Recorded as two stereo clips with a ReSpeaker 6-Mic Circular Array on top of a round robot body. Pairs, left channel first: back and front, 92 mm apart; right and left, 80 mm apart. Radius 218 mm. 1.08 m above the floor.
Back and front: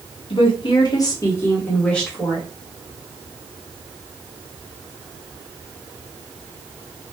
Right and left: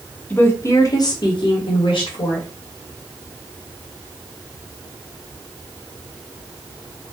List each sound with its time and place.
0.3 s a woman speaking: 160° right, 0.8 m; by 2.5 s 90° right, 1.3 m